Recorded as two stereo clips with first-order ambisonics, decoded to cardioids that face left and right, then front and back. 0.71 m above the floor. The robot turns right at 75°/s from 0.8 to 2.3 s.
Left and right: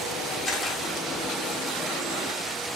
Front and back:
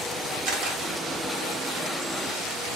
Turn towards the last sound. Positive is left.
turn(degrees=-80)